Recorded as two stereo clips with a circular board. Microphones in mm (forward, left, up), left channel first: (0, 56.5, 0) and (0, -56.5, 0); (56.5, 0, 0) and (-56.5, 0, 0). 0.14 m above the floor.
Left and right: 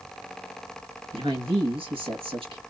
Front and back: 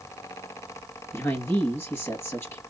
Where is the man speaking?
65° right, 2.5 m.